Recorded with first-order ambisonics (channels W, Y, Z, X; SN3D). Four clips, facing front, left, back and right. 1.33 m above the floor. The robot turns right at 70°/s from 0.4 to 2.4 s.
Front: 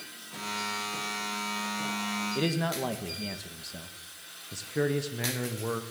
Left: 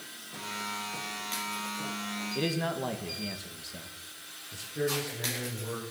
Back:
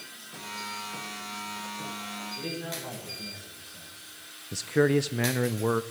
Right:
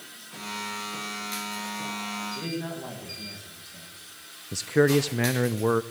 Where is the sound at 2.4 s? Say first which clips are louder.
Left 2 dB, front 7 dB; 20° left, 1.6 m; by 3.9 s 25° left, 1.6 m.